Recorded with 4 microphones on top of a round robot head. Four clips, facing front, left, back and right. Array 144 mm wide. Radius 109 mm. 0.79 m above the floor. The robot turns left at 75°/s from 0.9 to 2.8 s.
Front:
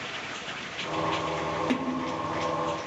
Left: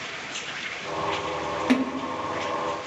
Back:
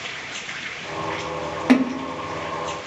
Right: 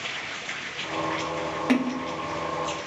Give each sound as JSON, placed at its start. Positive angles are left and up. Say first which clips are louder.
{"t": 1.7, "sound": "a splash", "louder": "even, back 10 dB", "azimuth_deg": 175, "distance_m": 0.9}